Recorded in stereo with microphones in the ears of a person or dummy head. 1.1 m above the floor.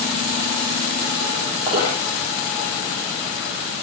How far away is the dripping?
About 8 m.